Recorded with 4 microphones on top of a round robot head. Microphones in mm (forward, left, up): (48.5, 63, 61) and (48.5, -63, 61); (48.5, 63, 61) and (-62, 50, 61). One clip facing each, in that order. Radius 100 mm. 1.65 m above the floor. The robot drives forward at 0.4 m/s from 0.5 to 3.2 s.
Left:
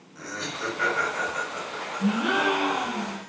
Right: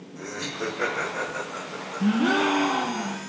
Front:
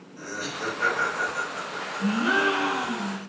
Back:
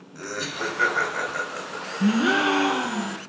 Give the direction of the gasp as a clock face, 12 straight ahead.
5 o'clock.